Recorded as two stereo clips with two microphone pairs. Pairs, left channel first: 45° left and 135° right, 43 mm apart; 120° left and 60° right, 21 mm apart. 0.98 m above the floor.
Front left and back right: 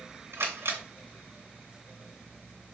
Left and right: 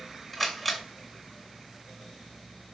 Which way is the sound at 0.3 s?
150° right.